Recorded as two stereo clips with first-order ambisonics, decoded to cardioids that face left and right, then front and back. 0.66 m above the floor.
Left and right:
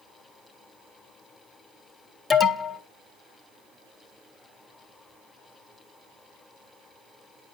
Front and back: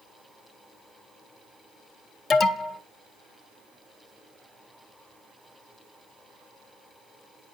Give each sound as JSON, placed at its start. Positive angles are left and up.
{"t": 2.3, "sound": "an alarm", "azimuth_deg": 25, "distance_m": 0.6}